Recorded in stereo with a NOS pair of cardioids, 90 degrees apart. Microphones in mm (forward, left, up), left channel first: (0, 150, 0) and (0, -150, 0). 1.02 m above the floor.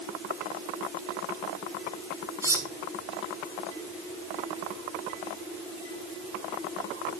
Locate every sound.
2.4 s cutlery clinking: 10° right, 3 m